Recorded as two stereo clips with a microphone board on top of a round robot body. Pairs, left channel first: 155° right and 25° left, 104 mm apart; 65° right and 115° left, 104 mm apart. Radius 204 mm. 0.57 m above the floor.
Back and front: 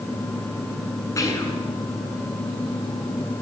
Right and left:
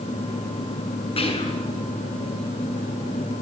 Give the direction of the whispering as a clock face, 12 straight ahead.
3 o'clock.